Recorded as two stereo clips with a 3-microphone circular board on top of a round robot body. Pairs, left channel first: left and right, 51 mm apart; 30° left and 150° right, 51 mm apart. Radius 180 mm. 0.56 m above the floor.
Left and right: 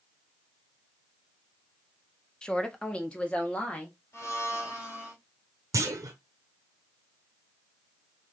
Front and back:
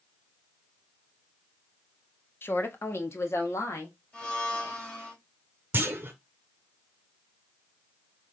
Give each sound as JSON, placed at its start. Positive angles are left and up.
{"t": 2.4, "sound": "a woman speaking", "azimuth_deg": 25, "distance_m": 1.1}
{"t": 4.1, "sound": "a blender", "azimuth_deg": 100, "distance_m": 2.5}
{"t": 5.7, "sound": "a clunk", "azimuth_deg": -100, "distance_m": 0.7}